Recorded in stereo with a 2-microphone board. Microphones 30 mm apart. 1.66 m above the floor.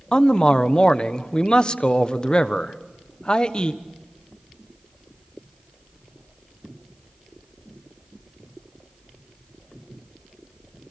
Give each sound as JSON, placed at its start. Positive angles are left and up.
{"t": 0.1, "sound": "a man speaking", "side_deg": 25, "distance_m": 1.2}